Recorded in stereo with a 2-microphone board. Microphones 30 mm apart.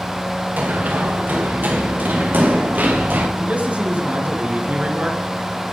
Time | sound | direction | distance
0.6 | running footsteps | 80° right | 6.5 m
3.4 | a man speaking | 55° right (ahead or behind) | 3.5 m